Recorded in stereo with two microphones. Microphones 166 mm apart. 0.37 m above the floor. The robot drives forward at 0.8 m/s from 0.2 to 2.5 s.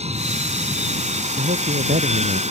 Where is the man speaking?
80° right.